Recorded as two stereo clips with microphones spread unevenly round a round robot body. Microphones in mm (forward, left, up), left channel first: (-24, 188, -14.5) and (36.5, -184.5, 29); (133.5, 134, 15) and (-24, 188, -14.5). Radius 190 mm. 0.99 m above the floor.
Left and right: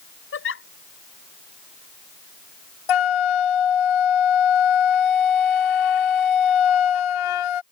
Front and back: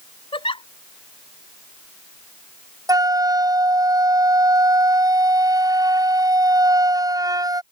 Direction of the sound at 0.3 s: 40° left.